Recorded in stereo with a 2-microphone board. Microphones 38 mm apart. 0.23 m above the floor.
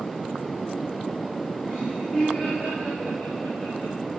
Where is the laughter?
10° right (ahead or behind), 1.9 m; by 4.0 s centre (ahead or behind), 5 m.